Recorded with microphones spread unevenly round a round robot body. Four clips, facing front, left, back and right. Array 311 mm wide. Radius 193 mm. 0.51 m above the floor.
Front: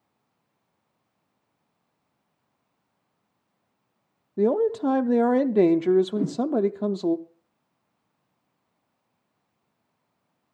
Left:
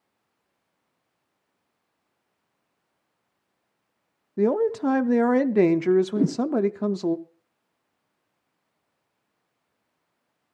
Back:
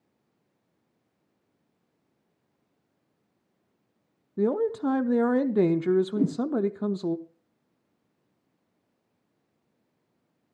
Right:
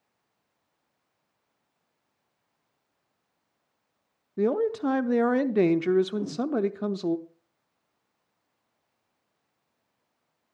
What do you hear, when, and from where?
4.4 s a man speaking: 40° left, 0.6 m
6.2 s a whoosh: 130° left, 1.8 m